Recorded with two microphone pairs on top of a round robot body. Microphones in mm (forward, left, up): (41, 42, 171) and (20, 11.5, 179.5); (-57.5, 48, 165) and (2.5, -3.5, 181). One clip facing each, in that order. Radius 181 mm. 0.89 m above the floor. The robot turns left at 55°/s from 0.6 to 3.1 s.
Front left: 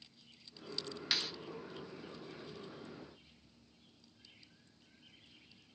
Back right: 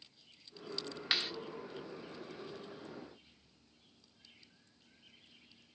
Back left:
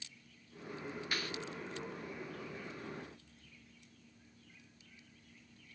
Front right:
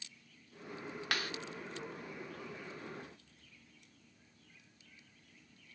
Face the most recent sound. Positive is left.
turn(degrees=-160)